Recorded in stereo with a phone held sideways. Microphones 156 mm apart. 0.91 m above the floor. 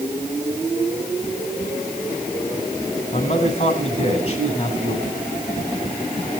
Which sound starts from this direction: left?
A man speaking, at 3.1 s.